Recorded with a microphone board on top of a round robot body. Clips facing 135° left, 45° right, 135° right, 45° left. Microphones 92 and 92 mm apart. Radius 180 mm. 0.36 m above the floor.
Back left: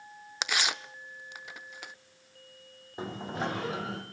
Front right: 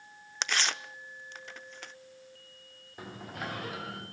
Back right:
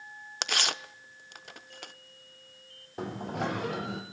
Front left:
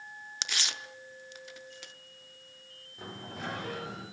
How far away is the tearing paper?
About 1.0 m.